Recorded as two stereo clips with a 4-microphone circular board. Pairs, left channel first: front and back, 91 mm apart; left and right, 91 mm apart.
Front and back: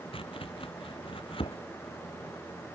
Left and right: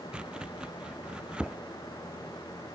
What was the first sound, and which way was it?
Chopping, 10° right.